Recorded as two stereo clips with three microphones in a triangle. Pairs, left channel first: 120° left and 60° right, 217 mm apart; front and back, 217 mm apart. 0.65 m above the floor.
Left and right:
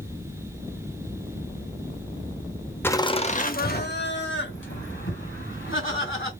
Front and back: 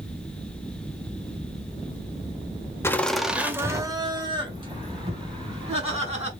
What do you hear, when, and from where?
2.8 s laughter: 55° left, 0.6 m; by 6.3 s 120° left, 2.5 m